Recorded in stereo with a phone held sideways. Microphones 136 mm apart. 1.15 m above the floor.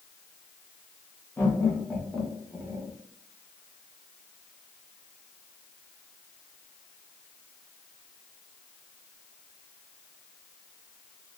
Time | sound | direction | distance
1.4 | laughter | 20° left (ahead or behind) | 1.2 m